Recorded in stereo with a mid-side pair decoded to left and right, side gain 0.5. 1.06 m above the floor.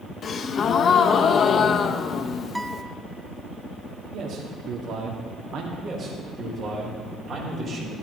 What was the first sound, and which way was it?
A gasp, 50° left.